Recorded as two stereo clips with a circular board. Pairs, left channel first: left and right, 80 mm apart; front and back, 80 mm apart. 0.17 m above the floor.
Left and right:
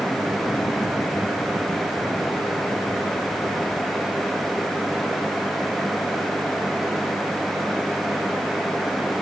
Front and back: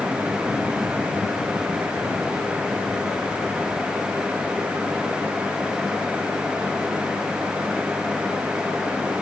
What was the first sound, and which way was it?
Only background noise.